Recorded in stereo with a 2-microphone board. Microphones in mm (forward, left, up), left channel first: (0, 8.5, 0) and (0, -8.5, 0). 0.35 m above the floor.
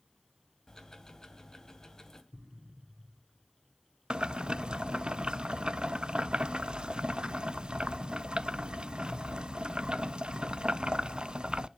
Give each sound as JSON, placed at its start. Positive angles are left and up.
{"t": 0.7, "sound": "ticking", "side_deg": 35, "distance_m": 2.5}
{"t": 2.3, "sound": "an explosion", "side_deg": -75, "distance_m": 4.5}
{"t": 4.1, "sound": "boiling", "side_deg": -75, "distance_m": 0.5}